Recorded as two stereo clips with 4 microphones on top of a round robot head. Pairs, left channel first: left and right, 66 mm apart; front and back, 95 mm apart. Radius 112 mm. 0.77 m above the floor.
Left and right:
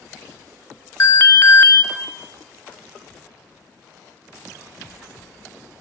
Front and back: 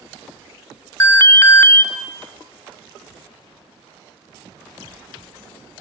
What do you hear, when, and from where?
1.0 s an alarm: 55° left, 0.8 m